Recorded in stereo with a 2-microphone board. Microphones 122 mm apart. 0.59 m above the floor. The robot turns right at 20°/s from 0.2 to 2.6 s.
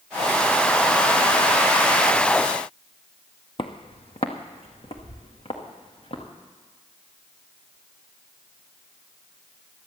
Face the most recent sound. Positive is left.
turn(degrees=50)  # may be behind; listen again after turning